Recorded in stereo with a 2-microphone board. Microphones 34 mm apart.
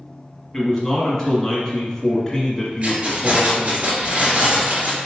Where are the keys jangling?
45° right (ahead or behind), 2.0 m.